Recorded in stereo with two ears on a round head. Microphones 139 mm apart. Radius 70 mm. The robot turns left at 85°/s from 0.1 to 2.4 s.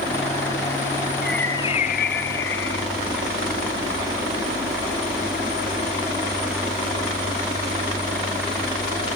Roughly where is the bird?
Behind.